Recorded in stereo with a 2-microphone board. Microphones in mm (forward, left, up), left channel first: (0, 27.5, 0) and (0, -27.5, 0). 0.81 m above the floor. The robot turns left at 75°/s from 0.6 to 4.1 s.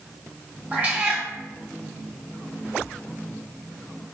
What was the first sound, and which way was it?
A cat meowing, 25° right (ahead or behind).